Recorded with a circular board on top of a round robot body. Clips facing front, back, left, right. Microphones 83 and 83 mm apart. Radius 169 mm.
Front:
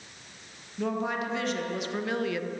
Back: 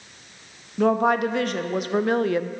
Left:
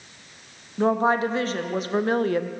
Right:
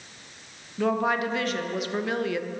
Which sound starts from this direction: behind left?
A woman speaking, at 0.8 s.